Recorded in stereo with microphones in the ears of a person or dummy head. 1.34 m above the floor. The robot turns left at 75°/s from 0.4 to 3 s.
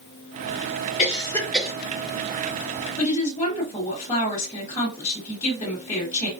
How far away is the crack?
No crack in this recording.